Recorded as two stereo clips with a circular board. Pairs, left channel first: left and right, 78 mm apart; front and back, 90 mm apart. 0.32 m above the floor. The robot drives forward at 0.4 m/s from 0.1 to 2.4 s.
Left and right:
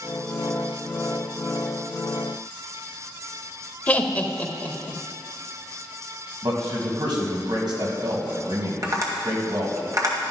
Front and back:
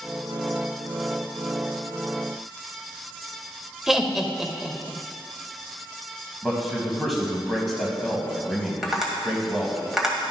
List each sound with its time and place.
3.9 s laughter: 105° left, 0.8 m
6.4 s a man speaking: 90° right, 2.0 m
8.8 s tapping: 95° right, 1.8 m